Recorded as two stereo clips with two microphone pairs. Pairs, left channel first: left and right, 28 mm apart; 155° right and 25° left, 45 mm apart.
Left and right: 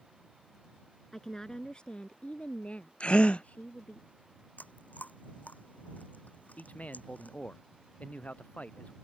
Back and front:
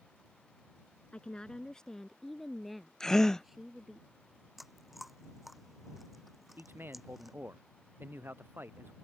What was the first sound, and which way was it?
A woman speaking, 155° left.